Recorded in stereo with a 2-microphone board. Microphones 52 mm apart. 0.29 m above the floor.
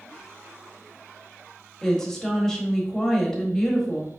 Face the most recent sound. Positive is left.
turn(degrees=10)  # may be behind; listen again after turning